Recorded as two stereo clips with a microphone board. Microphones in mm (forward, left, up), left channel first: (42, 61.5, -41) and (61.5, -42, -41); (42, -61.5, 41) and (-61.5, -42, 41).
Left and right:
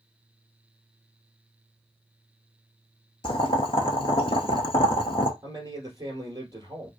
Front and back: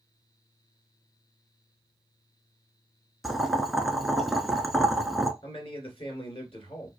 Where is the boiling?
80° left, 0.6 m.